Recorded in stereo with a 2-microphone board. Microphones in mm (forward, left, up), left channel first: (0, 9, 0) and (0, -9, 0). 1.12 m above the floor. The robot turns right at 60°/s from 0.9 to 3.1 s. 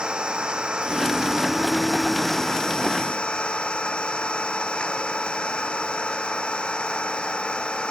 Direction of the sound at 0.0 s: 65° right.